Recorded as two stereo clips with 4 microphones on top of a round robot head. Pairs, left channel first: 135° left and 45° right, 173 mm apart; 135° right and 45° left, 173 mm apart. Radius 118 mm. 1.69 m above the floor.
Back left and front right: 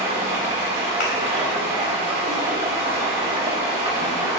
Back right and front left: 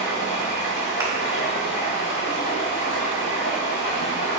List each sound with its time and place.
0.0 s running water: 115° right, 3 m
1.0 s a thud: 115° left, 3.5 m